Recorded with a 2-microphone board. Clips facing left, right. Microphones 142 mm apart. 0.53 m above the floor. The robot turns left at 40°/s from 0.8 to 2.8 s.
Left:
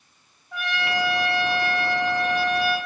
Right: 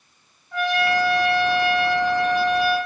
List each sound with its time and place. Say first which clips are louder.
0.5 s a trumpet: right 6 dB; 10° left, 0.9 m; by 2.8 s 65° right, 0.9 m